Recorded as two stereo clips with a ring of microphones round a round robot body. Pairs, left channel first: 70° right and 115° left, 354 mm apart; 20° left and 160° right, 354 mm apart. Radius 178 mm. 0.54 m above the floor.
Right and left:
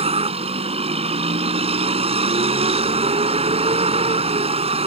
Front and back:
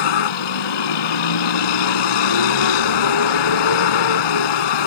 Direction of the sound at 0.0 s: 40° left.